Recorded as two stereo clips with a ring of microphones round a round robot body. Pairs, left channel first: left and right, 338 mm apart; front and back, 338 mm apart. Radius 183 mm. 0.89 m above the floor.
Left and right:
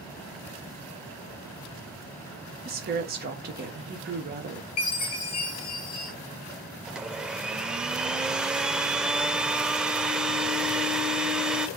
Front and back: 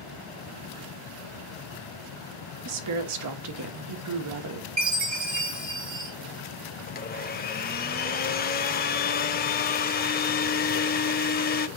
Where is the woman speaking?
150° right, 1.5 m.